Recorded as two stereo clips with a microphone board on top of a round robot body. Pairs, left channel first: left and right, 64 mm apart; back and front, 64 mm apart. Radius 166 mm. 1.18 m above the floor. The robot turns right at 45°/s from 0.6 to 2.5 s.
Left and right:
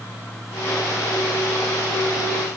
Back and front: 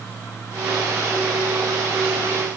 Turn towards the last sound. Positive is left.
No sound to turn to.